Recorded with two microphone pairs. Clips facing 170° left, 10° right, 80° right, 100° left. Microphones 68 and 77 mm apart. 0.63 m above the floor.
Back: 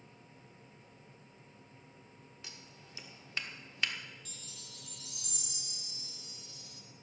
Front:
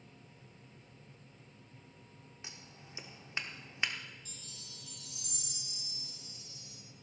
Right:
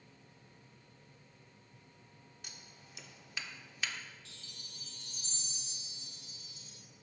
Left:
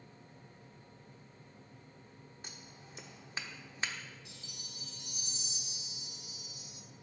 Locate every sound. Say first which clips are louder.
2.4 s scissors: front 2 dB, left 3 dB; 50° left, 1.0 m
4.2 s a chime: back 1 dB, left 3 dB; 175° left, 1.1 m